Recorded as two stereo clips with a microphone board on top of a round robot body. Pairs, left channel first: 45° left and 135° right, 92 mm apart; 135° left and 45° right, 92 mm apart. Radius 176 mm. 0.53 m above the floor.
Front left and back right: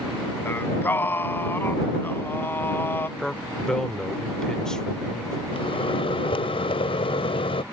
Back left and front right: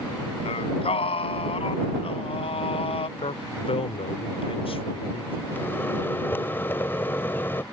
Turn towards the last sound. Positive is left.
turn(degrees=65)